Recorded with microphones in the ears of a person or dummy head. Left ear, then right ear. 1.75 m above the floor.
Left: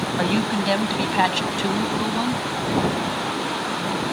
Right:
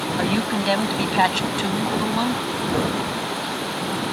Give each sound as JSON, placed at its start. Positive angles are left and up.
{"t": 0.2, "sound": "a woman speaking", "side_deg": 0}